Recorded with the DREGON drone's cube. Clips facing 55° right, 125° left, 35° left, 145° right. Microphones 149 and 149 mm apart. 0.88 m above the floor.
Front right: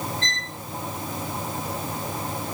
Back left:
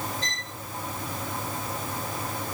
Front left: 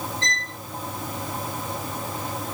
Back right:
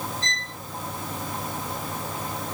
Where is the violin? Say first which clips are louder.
Front right 3 dB, front left 3 dB; 45° left, 3.5 m.